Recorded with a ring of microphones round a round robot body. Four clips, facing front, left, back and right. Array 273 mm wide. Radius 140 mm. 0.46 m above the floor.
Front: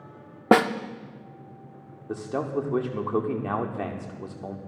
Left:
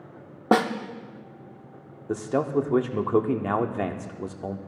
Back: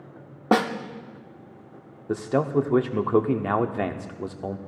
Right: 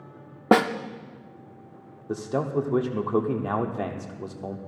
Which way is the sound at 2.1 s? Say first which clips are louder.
Left 2 dB, back 5 dB; 160° left.